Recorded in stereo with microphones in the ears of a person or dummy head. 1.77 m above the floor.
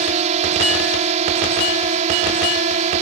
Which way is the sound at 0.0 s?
40° right (ahead or behind).